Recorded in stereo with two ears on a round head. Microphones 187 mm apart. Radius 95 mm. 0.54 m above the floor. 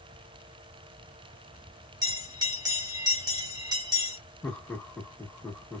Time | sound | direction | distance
2.0 | a bell | 20° right (ahead or behind) | 1.1 m
4.4 | laughter | 5° left (ahead or behind) | 1.0 m